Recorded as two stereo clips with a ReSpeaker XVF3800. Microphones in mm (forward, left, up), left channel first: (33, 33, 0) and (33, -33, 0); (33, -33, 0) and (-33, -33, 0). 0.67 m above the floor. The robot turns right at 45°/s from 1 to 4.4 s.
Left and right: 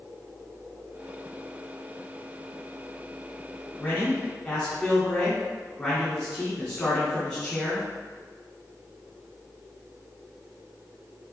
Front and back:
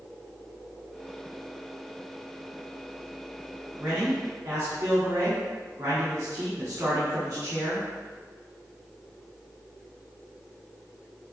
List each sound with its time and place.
3.8 s a man speaking: 140° left, 1.4 m; by 7.9 s 165° left, 1.4 m